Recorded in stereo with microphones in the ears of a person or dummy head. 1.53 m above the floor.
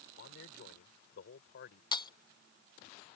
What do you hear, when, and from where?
0.2 s a man speaking: 60° left (ahead or behind); by 1.8 s 55° left (ahead or behind)
1.9 s breaking glass: 25° left (ahead or behind)